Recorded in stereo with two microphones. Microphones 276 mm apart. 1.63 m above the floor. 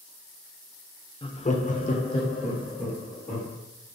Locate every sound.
1.2 s laughter: 20° left (ahead or behind), 0.5 m; by 3.5 s 15° left (ahead or behind), 1.6 m